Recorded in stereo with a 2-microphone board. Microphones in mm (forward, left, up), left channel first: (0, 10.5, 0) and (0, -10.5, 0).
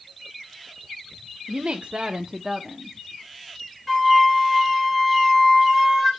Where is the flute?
Centre (ahead or behind), 4.5 m.